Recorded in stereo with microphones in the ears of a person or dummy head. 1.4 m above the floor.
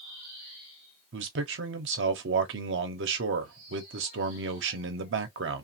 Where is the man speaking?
55° right (ahead or behind), 0.8 m.